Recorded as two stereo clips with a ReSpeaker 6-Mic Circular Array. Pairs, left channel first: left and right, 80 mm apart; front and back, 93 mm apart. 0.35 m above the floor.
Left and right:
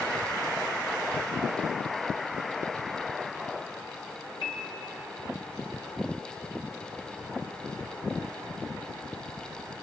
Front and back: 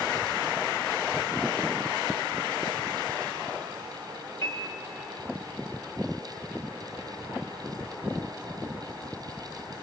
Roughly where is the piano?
Ahead left.